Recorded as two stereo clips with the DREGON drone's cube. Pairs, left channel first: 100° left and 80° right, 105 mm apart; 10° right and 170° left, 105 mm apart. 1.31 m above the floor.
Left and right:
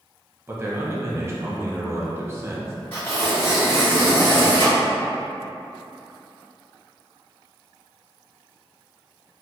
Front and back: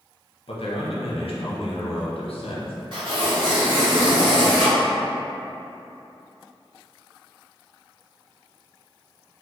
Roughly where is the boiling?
I don't hear boiling.